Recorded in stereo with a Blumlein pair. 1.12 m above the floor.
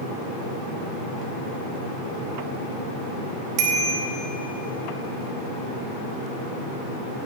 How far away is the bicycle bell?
About 2.5 m.